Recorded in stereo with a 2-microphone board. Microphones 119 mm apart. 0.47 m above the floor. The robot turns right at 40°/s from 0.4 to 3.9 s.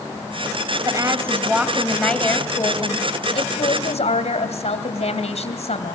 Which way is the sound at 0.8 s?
40° right.